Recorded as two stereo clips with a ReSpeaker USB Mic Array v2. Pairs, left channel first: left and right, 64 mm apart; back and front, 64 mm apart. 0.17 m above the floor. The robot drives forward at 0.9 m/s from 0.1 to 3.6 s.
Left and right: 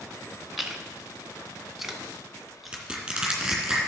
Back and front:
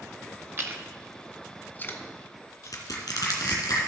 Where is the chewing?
5° right, 1.0 m; by 3.7 s straight behind, 2 m.